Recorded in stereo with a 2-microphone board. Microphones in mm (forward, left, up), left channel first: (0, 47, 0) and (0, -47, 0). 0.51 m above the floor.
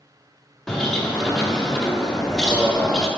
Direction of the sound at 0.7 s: 5° left (ahead or behind).